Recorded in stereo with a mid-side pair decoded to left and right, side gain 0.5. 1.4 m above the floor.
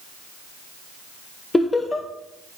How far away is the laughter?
About 0.7 m.